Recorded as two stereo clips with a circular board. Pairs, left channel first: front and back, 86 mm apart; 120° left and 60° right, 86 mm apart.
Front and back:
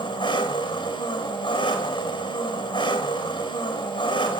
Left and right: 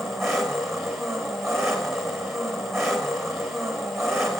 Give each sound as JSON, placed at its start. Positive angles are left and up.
{"t": 0.0, "sound": "an engine running", "azimuth_deg": 30, "distance_m": 5.5}